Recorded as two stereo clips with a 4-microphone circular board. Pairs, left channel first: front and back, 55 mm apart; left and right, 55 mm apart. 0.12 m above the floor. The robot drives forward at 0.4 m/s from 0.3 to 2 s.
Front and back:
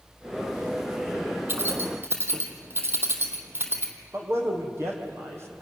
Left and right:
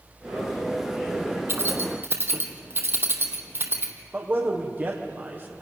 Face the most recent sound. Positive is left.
turn(degrees=-140)